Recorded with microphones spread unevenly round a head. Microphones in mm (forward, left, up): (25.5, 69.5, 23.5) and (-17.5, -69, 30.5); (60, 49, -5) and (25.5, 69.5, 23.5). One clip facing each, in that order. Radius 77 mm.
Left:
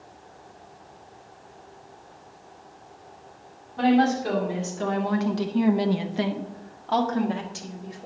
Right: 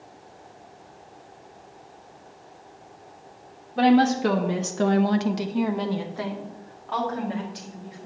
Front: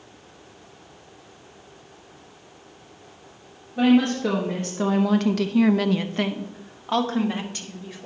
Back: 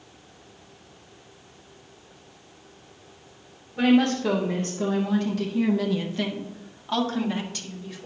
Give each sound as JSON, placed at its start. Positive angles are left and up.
{"t": 3.8, "sound": "a woman speaking", "azimuth_deg": -100, "distance_m": 1.2}